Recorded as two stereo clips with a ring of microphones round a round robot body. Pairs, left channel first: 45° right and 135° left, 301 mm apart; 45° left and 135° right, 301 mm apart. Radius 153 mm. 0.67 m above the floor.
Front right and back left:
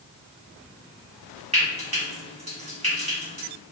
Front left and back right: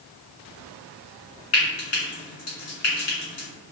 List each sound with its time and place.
1.5 s frying: 70° left, 1.9 m